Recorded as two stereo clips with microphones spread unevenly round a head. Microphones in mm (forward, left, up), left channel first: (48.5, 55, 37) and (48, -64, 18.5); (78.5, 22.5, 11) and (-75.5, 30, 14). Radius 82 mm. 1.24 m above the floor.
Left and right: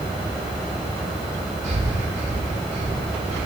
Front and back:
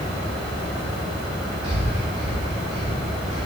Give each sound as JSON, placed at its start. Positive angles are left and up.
{"t": 1.6, "sound": "breathing", "azimuth_deg": -125, "distance_m": 4.0}